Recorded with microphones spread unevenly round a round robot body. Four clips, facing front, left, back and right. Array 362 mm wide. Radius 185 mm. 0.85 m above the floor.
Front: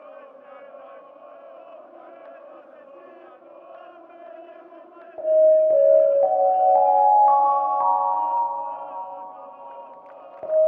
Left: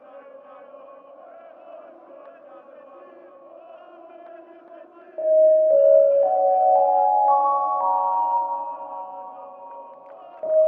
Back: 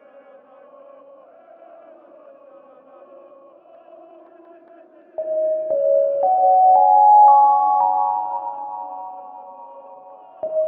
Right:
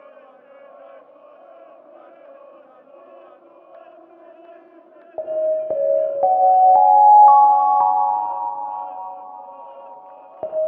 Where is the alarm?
100° right, 1.6 m.